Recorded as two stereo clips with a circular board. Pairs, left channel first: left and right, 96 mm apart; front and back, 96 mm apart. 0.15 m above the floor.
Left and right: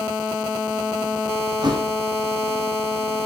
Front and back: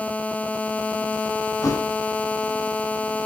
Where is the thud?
55° right, 3 m.